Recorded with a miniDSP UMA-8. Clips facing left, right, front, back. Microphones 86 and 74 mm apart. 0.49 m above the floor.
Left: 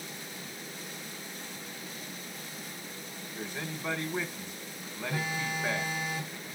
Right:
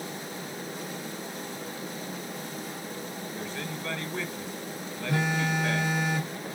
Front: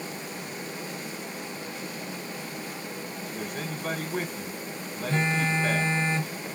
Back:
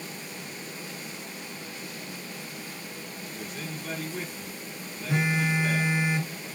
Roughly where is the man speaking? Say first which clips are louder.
Even, front 4 dB; ahead.